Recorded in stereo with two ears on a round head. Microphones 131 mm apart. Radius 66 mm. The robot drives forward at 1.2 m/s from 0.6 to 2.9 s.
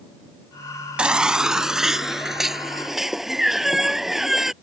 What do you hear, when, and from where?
1.0 s a baby crying: 10° right (ahead or behind); by 4.5 s centre (ahead or behind)